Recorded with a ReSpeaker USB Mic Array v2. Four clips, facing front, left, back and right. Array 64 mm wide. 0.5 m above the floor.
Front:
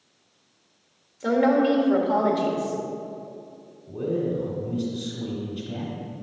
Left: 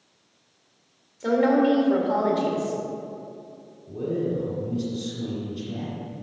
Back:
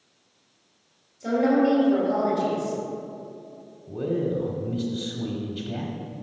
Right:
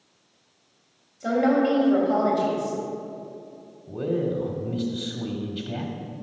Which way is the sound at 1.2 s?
30° left.